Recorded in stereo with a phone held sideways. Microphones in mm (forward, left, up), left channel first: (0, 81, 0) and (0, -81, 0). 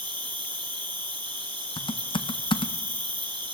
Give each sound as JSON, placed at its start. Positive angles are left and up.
{"t": 0.0, "sound": "an insect", "side_deg": -30, "distance_m": 2.0}
{"t": 1.8, "sound": "typing on a keyboard", "side_deg": 30, "distance_m": 0.5}